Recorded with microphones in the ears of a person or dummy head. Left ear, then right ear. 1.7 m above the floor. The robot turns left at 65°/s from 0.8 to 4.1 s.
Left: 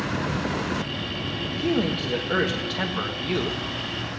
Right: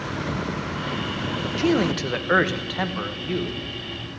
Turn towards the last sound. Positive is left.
turn(degrees=110)